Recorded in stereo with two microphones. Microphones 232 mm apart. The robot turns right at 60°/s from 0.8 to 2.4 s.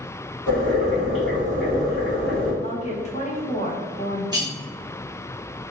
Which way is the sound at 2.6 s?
30° left (ahead or behind).